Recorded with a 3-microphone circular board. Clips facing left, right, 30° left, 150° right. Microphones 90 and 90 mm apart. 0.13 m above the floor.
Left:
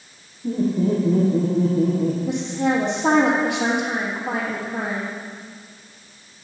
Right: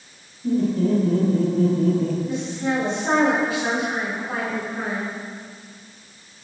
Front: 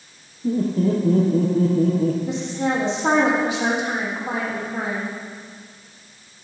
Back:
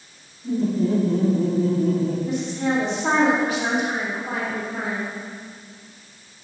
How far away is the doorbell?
I don't hear a doorbell.